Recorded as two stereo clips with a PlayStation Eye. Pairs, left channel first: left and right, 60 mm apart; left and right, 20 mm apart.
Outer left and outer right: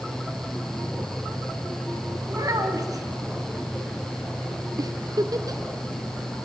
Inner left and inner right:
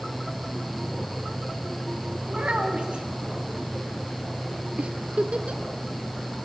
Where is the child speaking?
65° right (ahead or behind), 3.5 m.